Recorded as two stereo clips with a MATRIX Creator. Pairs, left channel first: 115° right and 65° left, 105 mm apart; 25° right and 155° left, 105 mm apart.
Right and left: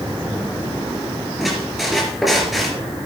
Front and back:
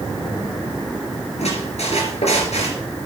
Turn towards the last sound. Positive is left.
turn(degrees=-20)